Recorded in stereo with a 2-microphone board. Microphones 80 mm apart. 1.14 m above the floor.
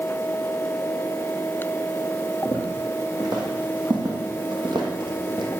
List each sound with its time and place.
2.5 s footsteps: 45° right (ahead or behind), 2.5 m; by 5.5 s 55° right (ahead or behind), 2 m